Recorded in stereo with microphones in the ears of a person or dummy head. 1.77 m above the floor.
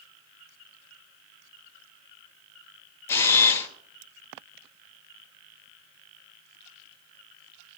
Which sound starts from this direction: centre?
A camera shutter, at 3.1 s.